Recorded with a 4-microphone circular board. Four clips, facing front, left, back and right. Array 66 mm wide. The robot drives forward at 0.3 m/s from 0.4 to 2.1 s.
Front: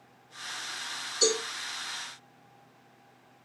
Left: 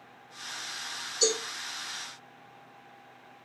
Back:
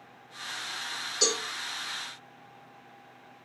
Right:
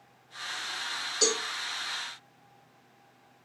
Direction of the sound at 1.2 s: 120° right.